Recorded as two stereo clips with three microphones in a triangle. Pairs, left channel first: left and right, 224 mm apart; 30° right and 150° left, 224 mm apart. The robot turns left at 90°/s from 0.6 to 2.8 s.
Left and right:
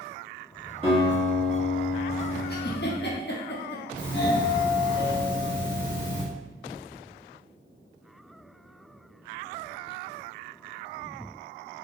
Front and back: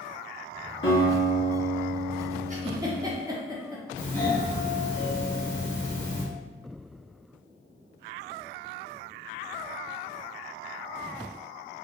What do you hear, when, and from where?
0.8 s a guitar: 25° right, 1.8 m; by 3.1 s 155° left, 1.8 m
2.5 s a giggle: 110° left, 0.7 m; by 3.8 s 85° left, 0.7 m
4.0 s a doorbell: 35° left, 1.3 m